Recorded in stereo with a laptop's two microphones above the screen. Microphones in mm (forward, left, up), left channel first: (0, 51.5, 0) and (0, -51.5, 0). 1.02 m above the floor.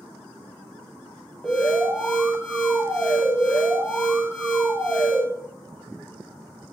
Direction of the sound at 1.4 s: 5° left (ahead or behind).